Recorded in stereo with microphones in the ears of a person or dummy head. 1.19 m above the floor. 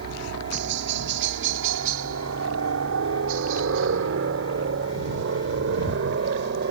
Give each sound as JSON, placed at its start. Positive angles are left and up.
{"t": 0.0, "sound": "a helicopter", "side_deg": -55}